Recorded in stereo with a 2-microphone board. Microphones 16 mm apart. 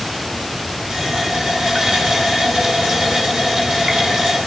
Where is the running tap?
40° right (ahead or behind), 9.5 m.